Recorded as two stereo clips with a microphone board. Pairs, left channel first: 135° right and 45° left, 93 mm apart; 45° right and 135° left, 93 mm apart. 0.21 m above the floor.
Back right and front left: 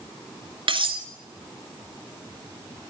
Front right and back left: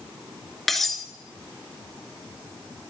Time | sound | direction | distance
0.7 | cutlery clinking | 45° left | 1.5 m